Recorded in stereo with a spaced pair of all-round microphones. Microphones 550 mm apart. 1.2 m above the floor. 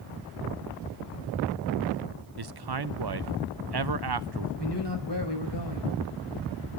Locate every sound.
2.4 s a man speaking: 45° right (ahead or behind), 0.6 m
4.6 s a man speaking: 45° left (ahead or behind), 5 m